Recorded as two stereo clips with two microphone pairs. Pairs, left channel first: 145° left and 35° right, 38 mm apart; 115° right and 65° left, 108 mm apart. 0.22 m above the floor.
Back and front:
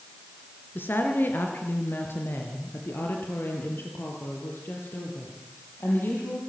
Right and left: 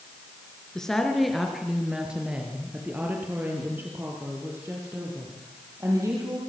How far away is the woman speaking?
About 3 m.